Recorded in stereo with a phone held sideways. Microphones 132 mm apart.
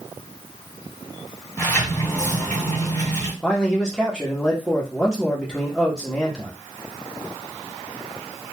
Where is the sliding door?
15° left (ahead or behind), 1.6 m.